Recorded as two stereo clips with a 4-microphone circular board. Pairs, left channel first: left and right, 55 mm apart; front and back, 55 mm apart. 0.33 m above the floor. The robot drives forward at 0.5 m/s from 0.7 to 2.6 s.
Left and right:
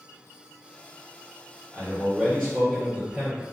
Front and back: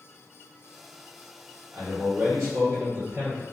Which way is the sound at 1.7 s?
155° left.